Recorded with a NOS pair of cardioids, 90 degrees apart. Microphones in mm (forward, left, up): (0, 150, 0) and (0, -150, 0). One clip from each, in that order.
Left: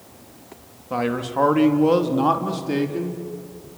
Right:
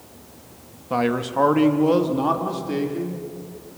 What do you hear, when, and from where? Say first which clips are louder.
0.9 s a man speaking: right 2 dB; 15° right, 2.0 m; by 3.2 s 35° left, 3 m